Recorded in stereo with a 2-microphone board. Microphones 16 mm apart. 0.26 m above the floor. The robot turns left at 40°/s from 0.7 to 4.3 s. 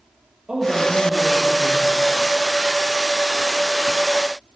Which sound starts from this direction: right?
A woman speaking, at 0.5 s.